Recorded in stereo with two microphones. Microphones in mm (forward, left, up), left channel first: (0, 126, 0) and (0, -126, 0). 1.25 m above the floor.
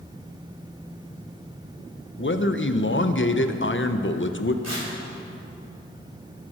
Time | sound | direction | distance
2.2 | a man speaking | 50° left (ahead or behind) | 0.7 m
4.6 | tearing paper | 80° right | 4 m